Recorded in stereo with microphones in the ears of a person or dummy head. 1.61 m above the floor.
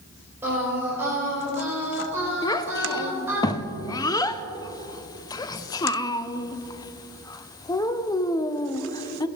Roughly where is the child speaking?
Centre.